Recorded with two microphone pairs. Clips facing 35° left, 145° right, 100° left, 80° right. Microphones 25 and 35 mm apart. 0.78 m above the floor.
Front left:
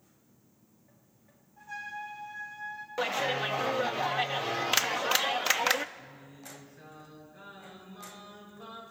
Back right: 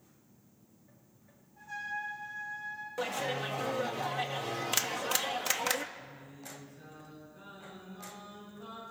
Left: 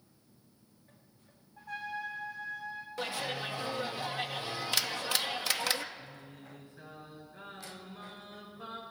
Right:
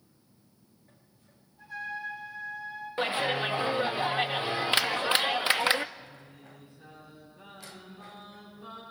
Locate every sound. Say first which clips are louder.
1.6 s a trumpet: back right 1 dB, right 2 dB; 120° left, 7 m
3.0 s a clap: front left 5 dB, right 8 dB; 25° right, 0.6 m
6.0 s singing: even, even; 100° left, 8 m